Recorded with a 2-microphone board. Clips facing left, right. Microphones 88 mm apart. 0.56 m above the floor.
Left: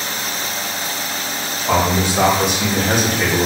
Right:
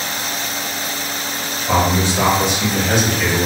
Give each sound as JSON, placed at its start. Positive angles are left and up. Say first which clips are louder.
{"t": 1.7, "sound": "a man speaking", "louder": "even", "side_deg": 60, "distance_m": 1.6}